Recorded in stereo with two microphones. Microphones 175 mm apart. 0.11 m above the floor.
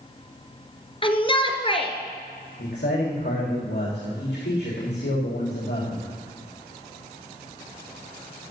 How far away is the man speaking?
About 6.5 m.